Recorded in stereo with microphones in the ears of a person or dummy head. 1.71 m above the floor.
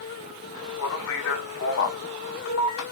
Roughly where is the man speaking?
Left.